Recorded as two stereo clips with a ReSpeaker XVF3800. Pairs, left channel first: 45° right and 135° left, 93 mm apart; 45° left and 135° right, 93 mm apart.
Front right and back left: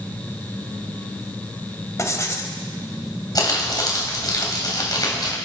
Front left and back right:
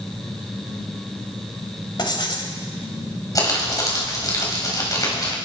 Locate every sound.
2.0 s writing: 10° left, 1.7 m
3.4 s crumpling: straight ahead, 3 m